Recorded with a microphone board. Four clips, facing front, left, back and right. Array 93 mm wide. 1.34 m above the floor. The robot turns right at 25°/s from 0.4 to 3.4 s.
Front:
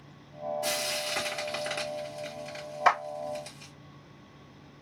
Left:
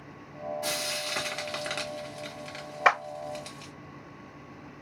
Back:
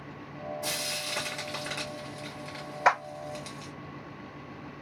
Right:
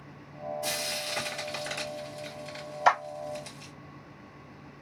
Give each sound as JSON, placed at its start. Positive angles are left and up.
{"t": 0.6, "sound": "frying", "azimuth_deg": 55, "distance_m": 1.2}
{"t": 2.9, "sound": "a clap", "azimuth_deg": 105, "distance_m": 2.0}